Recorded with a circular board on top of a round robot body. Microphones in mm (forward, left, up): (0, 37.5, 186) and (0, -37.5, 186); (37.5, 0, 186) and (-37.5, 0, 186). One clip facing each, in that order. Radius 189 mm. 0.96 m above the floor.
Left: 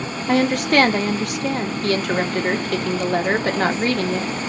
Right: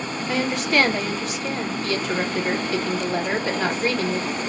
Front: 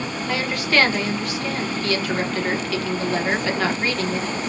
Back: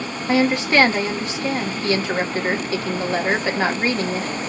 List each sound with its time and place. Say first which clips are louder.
0.3 s a woman speaking: left 6 dB, back 6 dB; 115° left, 1.4 m